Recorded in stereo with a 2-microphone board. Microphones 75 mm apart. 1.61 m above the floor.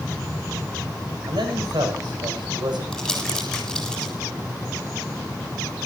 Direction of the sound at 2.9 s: 5° left (ahead or behind).